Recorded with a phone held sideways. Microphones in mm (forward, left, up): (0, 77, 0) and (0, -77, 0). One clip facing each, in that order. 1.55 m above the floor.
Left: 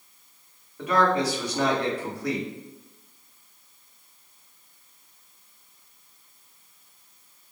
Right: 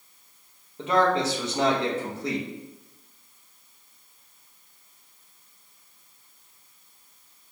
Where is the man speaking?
20° right (ahead or behind), 1.2 m.